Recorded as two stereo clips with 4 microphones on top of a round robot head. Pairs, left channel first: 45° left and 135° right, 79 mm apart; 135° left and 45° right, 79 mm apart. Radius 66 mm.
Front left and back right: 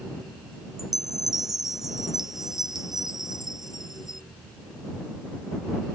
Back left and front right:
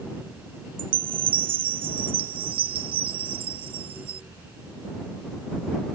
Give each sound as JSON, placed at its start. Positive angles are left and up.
{"t": 0.8, "sound": "a chime", "azimuth_deg": -50}